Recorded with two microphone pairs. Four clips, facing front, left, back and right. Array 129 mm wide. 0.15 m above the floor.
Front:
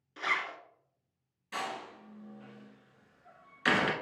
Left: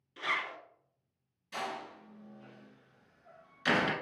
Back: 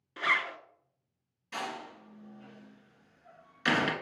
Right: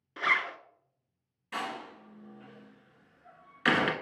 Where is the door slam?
80° right, 1.3 m.